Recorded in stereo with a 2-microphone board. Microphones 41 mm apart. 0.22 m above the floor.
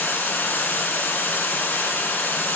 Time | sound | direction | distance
0.0 | running water | 65° left (ahead or behind) | 1.1 m